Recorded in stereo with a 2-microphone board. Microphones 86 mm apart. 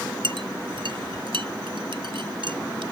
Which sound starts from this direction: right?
A clink, at 0.2 s.